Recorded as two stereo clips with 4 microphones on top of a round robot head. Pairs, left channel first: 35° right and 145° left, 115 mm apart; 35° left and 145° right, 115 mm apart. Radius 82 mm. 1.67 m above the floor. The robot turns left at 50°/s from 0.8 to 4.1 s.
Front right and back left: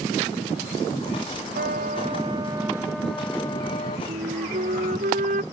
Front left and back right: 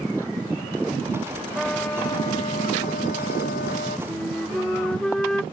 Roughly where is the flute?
Behind left.